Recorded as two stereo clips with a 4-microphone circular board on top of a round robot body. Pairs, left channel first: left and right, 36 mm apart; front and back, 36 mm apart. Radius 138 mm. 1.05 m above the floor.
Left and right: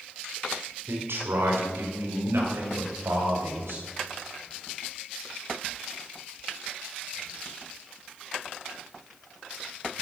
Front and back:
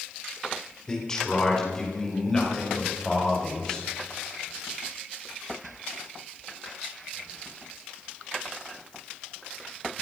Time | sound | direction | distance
0.9 | a man speaking | 75° right | 4 m